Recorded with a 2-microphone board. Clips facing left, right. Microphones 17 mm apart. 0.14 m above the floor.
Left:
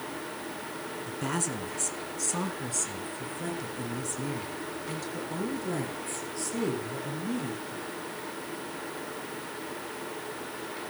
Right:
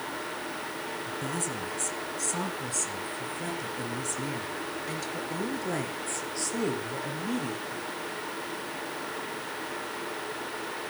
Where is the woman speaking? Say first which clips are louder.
Left 3 dB; 25° left (ahead or behind), 2 m; by 7.8 s 30° right (ahead or behind), 4.5 m.